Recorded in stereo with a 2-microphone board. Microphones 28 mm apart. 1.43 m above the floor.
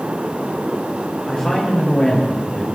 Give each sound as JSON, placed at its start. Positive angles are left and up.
{"t": 1.3, "sound": "a woman speaking", "side_deg": 25, "distance_m": 6.0}